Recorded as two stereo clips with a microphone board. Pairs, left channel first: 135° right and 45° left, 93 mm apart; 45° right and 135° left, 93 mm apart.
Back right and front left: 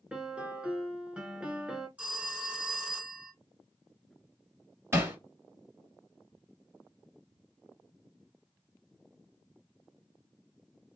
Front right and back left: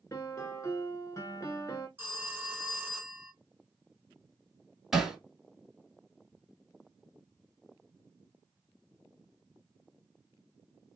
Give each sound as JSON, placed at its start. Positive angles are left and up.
{"t": 0.1, "sound": "a piano", "azimuth_deg": -25, "distance_m": 0.7}
{"t": 2.0, "sound": "a phone ringing", "azimuth_deg": 100, "distance_m": 0.7}
{"t": 4.9, "sound": "hammering", "azimuth_deg": 55, "distance_m": 1.5}